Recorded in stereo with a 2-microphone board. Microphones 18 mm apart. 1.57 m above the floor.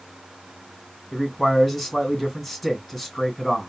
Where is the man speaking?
Centre (ahead or behind), 2.5 m.